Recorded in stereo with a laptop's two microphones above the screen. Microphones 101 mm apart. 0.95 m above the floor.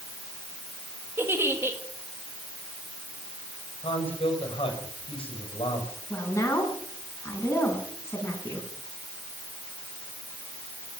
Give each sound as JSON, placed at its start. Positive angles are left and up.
{"t": 1.2, "sound": "a giggle", "side_deg": -25, "distance_m": 1.6}
{"t": 3.8, "sound": "a man speaking", "side_deg": 65, "distance_m": 5.0}
{"t": 6.1, "sound": "a woman speaking", "side_deg": 30, "distance_m": 7.5}